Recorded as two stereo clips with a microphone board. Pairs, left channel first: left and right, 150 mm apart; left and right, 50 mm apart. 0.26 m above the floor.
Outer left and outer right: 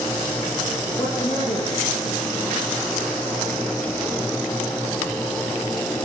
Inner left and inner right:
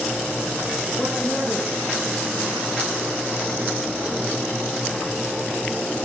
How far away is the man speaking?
About 7 m.